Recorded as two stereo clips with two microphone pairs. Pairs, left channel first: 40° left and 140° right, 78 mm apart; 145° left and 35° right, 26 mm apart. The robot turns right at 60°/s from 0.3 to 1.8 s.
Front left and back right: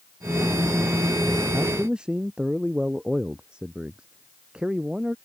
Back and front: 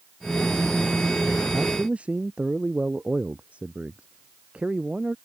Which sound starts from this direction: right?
A man speaking, at 1.5 s.